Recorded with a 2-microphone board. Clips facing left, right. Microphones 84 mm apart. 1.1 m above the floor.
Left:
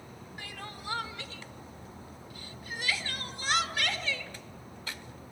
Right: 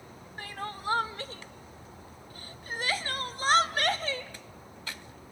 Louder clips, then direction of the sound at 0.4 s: Right 7 dB; 40° right (ahead or behind).